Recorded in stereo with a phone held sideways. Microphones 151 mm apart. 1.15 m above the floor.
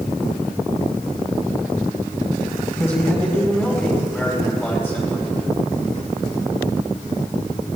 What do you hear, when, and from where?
2.7 s a man speaking: 15° left (ahead or behind), 8 m